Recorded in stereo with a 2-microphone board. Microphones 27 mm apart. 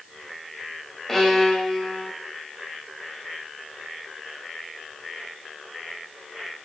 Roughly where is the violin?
Centre.